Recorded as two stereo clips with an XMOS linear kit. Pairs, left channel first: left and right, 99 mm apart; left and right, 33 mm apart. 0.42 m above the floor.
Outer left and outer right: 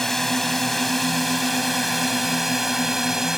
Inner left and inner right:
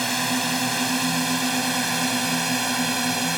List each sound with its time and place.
0.0 s a drone: 5° left (ahead or behind); by 3.4 s 5° right (ahead or behind)